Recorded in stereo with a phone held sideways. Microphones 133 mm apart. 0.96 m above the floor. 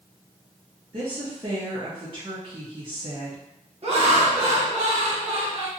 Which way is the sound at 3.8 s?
50° right (ahead or behind).